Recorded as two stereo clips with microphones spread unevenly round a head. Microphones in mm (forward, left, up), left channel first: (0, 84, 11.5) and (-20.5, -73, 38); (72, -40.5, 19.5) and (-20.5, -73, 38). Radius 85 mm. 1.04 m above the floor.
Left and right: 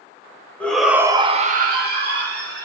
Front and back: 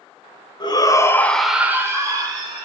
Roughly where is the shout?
Ahead.